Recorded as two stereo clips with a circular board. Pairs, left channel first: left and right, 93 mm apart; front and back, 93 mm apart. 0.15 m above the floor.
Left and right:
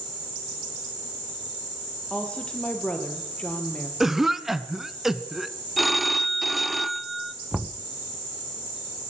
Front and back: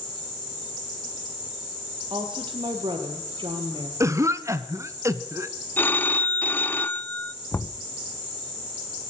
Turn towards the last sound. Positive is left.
turn(degrees=-10)